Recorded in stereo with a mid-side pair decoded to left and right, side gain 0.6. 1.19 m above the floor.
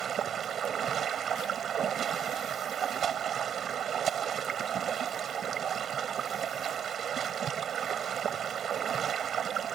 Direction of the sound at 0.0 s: 40° right.